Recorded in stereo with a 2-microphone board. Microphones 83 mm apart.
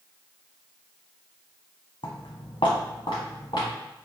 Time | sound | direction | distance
2.0 | footsteps | 70° left (ahead or behind) | 0.8 m